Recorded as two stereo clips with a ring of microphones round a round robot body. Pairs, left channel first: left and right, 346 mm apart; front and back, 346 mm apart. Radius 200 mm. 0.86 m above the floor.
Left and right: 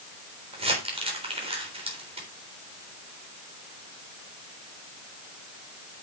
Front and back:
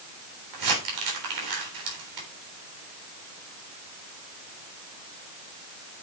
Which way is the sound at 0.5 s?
165° right.